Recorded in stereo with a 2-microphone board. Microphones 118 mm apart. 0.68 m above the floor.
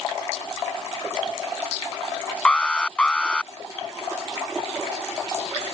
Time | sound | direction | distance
2.5 | an alarm | 5° left (ahead or behind) | ?